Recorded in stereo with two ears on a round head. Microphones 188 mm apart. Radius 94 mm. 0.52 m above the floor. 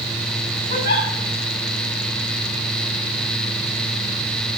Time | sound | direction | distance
0.7 | a giggle | 50° left (ahead or behind) | 6 m